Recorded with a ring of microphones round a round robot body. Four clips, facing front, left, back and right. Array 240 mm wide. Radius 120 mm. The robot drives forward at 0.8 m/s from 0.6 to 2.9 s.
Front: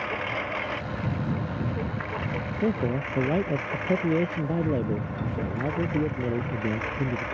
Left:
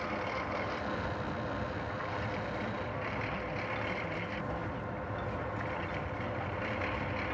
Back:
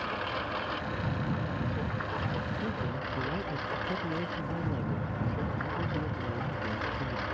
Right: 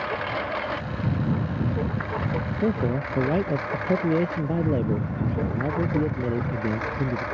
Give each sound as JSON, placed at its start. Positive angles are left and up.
{"t": 0.0, "sound": "a lawn mower", "azimuth_deg": -75}
{"t": 2.6, "sound": "a man speaking", "azimuth_deg": -55}